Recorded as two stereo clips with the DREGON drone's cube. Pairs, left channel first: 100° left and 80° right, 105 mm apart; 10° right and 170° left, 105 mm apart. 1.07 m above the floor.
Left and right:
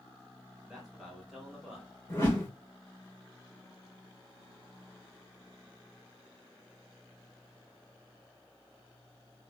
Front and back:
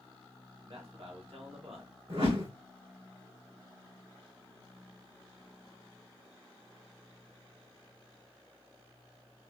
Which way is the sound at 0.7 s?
170° right.